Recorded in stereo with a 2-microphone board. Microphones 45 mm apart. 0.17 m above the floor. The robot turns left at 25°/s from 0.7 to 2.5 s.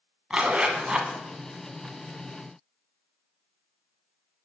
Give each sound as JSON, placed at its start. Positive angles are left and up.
{"t": 0.3, "sound": "a zipper", "side_deg": -20, "distance_m": 0.7}